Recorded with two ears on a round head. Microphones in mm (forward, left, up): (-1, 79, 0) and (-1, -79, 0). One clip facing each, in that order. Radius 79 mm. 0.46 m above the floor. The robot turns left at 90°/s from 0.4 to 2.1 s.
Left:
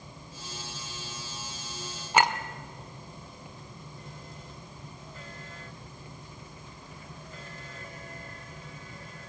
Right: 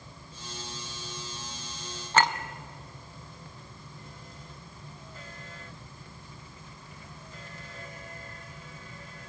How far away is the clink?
About 0.7 m.